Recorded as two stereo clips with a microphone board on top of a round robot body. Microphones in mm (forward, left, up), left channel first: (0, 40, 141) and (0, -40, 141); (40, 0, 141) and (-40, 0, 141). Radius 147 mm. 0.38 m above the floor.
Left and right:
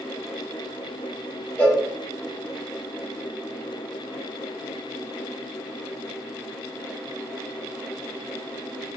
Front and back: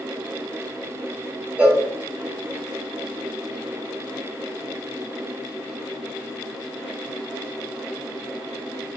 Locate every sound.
1.6 s a cowbell: 135° left, 1.5 m